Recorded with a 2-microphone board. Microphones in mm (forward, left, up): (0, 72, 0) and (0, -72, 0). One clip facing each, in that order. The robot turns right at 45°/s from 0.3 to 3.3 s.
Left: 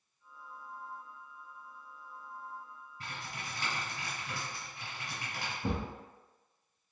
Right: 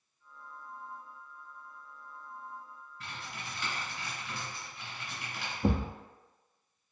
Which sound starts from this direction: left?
Typing on a keyboard, at 3.0 s.